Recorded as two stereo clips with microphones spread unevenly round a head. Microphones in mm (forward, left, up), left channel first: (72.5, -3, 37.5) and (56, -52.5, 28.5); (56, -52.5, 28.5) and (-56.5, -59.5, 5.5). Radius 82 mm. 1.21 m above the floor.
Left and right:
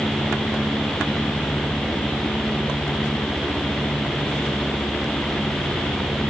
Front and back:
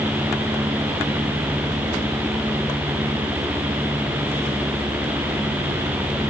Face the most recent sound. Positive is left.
No sound to turn to.